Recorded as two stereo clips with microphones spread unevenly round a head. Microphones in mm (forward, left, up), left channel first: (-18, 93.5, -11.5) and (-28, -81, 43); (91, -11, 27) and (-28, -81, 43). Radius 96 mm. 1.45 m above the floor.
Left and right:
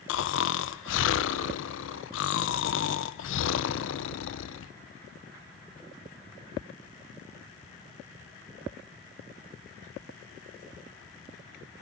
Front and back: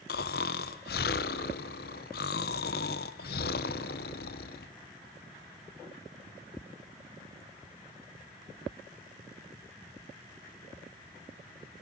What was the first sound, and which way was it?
Snoring, 55° left.